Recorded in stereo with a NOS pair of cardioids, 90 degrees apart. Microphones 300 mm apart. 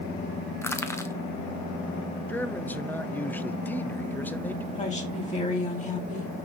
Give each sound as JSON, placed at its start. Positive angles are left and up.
{"t": 0.6, "sound": "crushing", "azimuth_deg": 10, "distance_m": 1.0}
{"t": 2.3, "sound": "a man speaking", "azimuth_deg": 5, "distance_m": 0.7}
{"t": 4.7, "sound": "a woman speaking", "azimuth_deg": 25, "distance_m": 4.0}